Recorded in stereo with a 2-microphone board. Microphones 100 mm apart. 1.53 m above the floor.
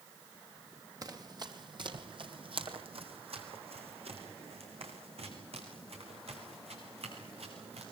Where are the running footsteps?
35° right (ahead or behind), 3 m; by 7.8 s 75° right (ahead or behind), 8.5 m.